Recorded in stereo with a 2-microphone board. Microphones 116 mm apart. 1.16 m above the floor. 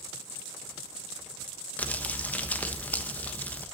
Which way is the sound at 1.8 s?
15° left (ahead or behind).